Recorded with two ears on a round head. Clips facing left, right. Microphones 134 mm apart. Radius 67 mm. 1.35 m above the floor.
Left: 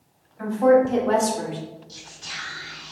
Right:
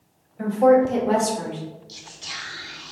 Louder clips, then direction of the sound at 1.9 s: Right 1 dB; 35° right (ahead or behind).